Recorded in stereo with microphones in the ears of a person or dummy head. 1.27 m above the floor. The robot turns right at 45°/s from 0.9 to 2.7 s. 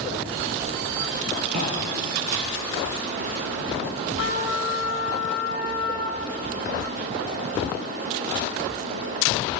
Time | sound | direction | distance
1.5 | footsteps | 35° right (ahead or behind) | 2 m
4.2 | a trumpet | 65° left (ahead or behind) | 1.1 m